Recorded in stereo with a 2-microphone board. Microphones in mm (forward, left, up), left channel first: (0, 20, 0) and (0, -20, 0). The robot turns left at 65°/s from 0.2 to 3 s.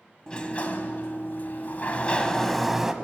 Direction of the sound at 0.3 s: 155° left.